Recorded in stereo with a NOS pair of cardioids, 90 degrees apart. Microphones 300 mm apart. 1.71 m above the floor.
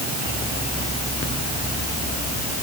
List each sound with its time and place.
Only background noise.